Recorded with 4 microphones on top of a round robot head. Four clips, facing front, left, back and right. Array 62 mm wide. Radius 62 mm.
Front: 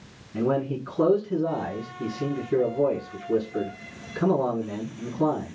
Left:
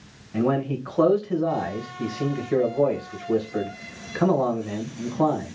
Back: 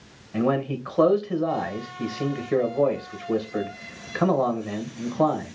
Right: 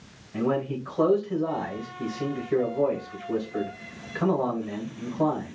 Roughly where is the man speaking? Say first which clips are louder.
Left 3 dB, back 1 dB; behind left.